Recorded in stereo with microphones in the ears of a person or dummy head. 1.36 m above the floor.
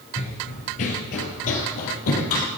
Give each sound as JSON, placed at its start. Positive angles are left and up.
{"t": 0.2, "sound": "running footsteps", "side_deg": 25, "distance_m": 1.4}